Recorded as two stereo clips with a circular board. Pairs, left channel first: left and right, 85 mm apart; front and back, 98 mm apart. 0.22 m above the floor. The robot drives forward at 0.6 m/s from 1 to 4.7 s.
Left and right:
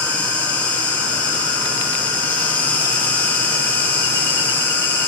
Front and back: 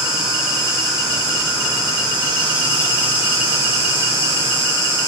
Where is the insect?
20° left, 7 m; by 5.1 s 25° left, 5 m.